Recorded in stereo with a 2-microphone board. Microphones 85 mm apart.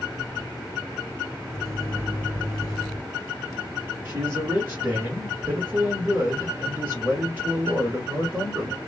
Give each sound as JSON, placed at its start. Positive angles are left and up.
{"t": 1.5, "sound": "a microwave", "side_deg": -35, "distance_m": 1.7}
{"t": 4.0, "sound": "a man speaking", "side_deg": -25, "distance_m": 1.7}